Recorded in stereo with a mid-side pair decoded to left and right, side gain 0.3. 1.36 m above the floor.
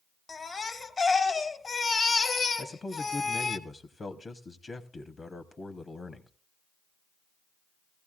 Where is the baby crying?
55° left, 0.9 m.